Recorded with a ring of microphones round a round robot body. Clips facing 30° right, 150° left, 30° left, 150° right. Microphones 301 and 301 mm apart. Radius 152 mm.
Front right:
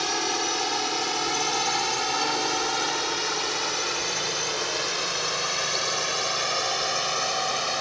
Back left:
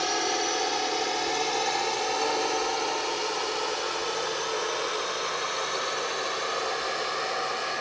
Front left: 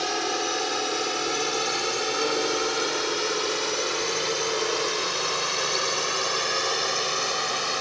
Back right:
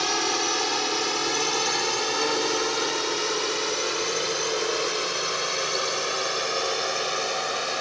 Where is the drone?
85° right; by 7.8 s 45° right.